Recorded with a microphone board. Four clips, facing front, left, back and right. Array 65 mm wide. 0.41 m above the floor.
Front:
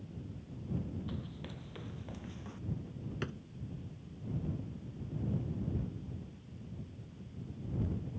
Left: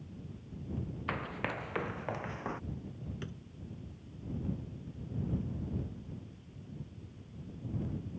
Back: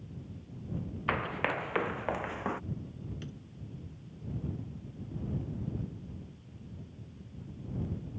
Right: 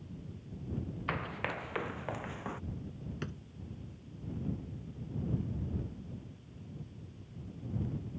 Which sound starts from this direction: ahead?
A drawer, at 3.2 s.